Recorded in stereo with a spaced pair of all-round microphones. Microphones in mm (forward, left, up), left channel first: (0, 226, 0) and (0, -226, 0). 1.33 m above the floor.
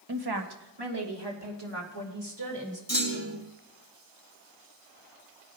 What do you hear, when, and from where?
0.1 s a woman speaking: 50° right (ahead or behind), 1.0 m; by 2.8 s 65° right (ahead or behind), 3.5 m
2.9 s a clunk: 30° left (ahead or behind), 2 m